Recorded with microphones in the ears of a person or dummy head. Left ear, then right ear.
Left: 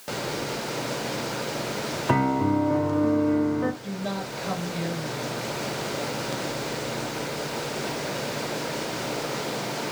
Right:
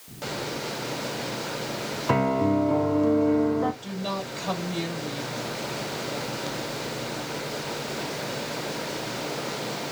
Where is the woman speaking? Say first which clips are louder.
Right 1 dB; 85° right, 2 m.